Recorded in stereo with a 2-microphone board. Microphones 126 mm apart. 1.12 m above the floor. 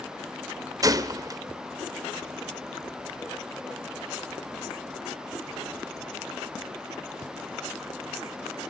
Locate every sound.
0.8 s a gunshot: 30° right (ahead or behind), 1.0 m